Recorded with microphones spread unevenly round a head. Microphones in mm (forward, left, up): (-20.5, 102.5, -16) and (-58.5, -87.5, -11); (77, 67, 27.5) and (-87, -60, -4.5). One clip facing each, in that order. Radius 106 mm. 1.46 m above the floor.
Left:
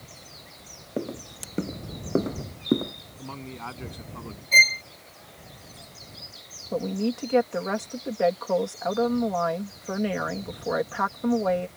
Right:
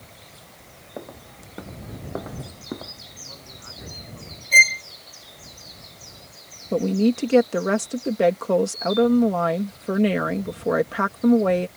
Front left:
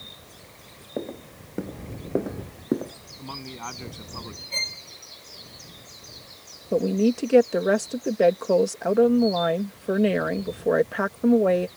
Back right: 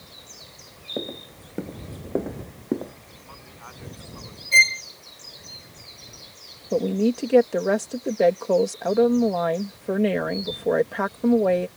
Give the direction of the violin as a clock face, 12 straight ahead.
6 o'clock.